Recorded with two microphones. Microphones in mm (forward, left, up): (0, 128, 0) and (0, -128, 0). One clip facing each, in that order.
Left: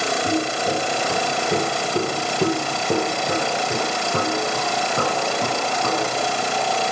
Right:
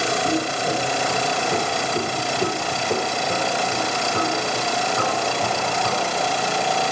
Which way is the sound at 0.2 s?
15° left (ahead or behind).